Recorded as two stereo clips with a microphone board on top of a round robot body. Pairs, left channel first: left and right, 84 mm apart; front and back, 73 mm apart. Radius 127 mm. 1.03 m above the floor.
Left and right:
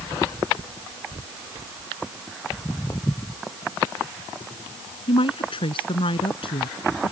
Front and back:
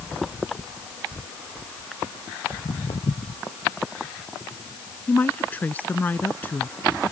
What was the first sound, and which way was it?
Footsteps, 20° left.